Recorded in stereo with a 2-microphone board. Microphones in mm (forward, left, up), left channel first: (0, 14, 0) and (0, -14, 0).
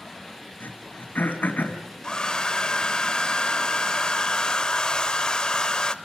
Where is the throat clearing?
85° left, 3 m.